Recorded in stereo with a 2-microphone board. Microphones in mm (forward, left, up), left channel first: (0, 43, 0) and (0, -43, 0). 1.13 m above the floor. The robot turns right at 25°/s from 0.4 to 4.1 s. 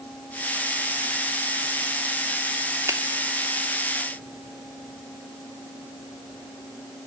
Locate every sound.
2.9 s a finger snap: 30° right (ahead or behind), 2.5 m; by 3.0 s 35° right (ahead or behind), 2.5 m